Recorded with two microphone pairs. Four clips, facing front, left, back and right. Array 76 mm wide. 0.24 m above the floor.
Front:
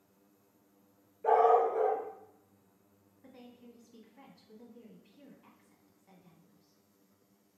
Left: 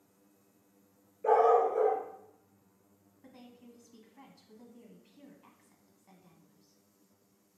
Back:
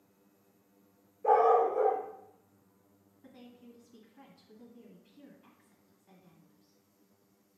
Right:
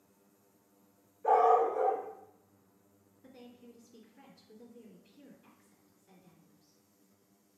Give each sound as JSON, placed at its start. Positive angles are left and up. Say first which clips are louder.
{"t": 1.2, "sound": "a dog barking", "louder": "left 1 dB, back 1 dB", "azimuth_deg": 60, "distance_m": 2.5}
{"t": 3.2, "sound": "a woman speaking", "louder": "right 1 dB, even", "azimuth_deg": 70, "distance_m": 1.5}